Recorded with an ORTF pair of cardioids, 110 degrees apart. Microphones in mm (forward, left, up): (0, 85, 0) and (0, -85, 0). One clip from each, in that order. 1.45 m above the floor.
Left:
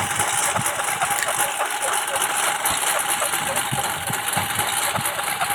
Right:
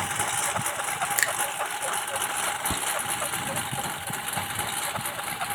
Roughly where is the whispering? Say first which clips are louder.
Left 6 dB; ahead.